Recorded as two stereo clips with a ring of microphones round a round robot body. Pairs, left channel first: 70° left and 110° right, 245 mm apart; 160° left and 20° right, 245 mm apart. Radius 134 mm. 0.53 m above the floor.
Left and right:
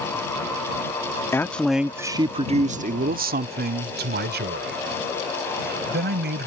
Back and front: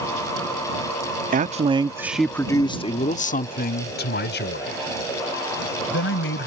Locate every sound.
1.3 s a man speaking: 5° right; by 6.5 s 160° right